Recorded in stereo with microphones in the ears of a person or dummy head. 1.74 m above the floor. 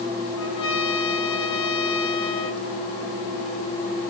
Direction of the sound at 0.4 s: 75° left (ahead or behind).